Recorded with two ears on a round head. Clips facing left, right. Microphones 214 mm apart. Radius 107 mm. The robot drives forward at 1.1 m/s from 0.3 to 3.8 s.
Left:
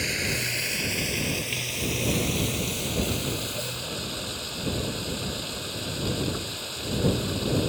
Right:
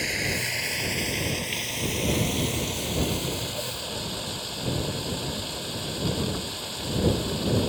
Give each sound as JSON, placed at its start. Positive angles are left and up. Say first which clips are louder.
{"t": 0.0, "sound": "running water", "louder": "even", "side_deg": 10}